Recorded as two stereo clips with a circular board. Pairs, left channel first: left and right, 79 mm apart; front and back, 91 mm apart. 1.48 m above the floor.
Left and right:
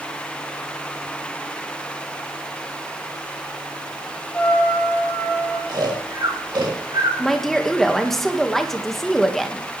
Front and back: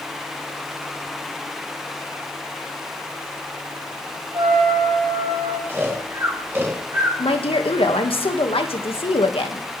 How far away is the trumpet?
About 3.5 m.